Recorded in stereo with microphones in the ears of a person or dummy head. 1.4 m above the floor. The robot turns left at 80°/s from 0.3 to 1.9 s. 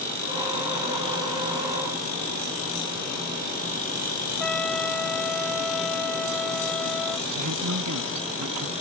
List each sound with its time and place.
4.4 s a trumpet: 5° left (ahead or behind)
7.3 s a man speaking: 90° right